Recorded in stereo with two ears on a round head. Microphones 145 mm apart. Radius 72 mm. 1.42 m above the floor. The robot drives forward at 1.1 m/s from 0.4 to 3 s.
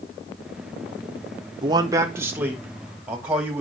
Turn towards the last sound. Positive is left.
turn(degrees=-10)  # may be behind; listen again after turning